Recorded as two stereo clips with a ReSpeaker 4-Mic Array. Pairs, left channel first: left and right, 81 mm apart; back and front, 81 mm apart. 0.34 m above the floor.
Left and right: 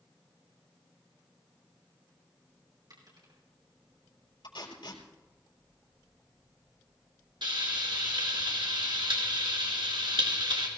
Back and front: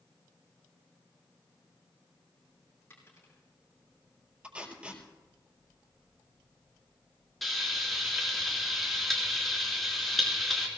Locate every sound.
2.9 s a dropped coin: 120° right, 5.5 m
4.4 s tape being pulled: 75° left, 4.5 m
7.4 s frying: 90° right, 4.5 m